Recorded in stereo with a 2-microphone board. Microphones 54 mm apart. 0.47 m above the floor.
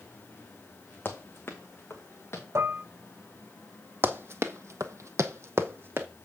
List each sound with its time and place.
1.1 s running footsteps: 35° left (ahead or behind), 1.8 m; by 2.5 s 45° left (ahead or behind), 2.5 m
2.5 s dishes clattering: 55° right (ahead or behind), 0.7 m
4.0 s running footsteps: 40° right (ahead or behind), 1.1 m